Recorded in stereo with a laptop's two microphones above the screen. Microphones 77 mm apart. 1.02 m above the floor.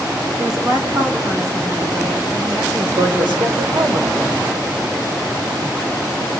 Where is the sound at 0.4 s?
55° right (ahead or behind), 2.5 m; by 2.6 s 50° right (ahead or behind), 5 m.